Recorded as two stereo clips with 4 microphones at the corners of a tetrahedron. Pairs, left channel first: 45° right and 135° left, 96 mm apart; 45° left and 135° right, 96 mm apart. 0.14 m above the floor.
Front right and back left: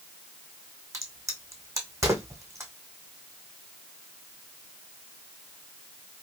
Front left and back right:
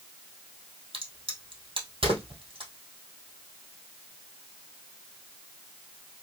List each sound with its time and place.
0.9 s a crack: 165° right, 1.9 m